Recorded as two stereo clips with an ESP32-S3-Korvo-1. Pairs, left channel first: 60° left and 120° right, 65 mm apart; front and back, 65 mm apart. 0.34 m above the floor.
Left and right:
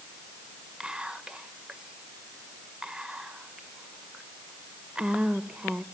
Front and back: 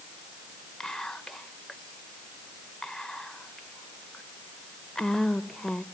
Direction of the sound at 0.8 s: 70° right.